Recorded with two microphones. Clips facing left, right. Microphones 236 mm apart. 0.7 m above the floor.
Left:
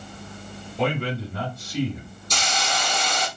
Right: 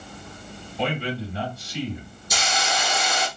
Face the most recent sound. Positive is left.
turn(degrees=-10)  # may be behind; listen again after turning